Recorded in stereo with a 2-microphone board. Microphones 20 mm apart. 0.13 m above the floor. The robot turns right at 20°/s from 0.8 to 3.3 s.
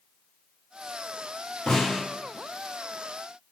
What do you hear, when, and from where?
1.7 s a snare drum: 55° left (ahead or behind), 1.5 m; by 2.0 s 50° left (ahead or behind), 1.5 m